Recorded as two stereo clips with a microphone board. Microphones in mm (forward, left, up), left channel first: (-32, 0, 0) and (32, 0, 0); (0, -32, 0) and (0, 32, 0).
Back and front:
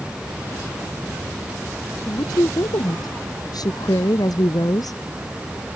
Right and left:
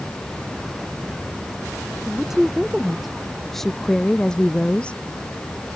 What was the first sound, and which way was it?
A woman speaking, 175° left.